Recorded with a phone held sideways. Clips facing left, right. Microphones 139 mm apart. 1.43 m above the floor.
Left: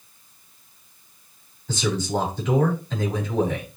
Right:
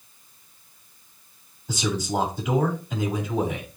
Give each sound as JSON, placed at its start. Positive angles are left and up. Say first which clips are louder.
{"t": 1.7, "sound": "a man speaking", "louder": "left 2 dB", "side_deg": -10, "distance_m": 5.0}